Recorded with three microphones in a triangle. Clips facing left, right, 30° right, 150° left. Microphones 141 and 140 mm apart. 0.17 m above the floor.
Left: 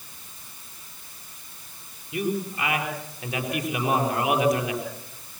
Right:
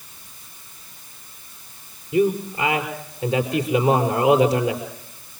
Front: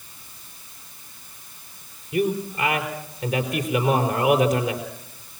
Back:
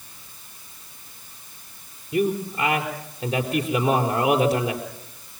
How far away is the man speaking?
About 5 m.